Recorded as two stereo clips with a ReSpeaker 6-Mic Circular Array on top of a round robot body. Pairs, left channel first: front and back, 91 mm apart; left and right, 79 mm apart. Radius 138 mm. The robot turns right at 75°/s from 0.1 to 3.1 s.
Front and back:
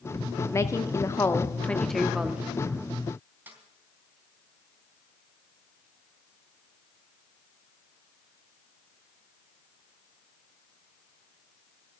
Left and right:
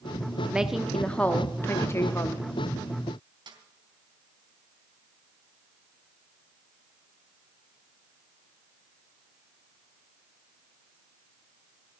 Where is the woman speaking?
25° right, 1.4 m; by 2.5 s 120° left, 1.4 m.